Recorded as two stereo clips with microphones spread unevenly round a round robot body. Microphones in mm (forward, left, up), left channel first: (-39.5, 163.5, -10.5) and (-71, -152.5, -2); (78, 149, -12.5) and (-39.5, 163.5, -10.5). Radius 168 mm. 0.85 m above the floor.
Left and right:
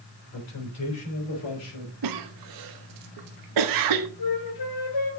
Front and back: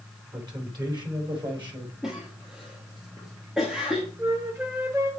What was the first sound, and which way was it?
A man speaking, 120° left.